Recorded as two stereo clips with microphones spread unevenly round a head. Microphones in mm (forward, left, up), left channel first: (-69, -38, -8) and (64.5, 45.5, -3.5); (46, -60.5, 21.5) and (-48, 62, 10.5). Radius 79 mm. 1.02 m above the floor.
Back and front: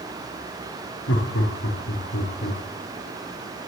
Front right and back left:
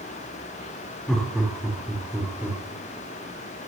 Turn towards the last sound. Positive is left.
turn(degrees=-150)